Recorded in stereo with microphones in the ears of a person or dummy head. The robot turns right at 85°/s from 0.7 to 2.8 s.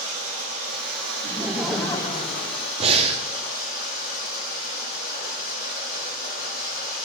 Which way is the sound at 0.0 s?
135° right.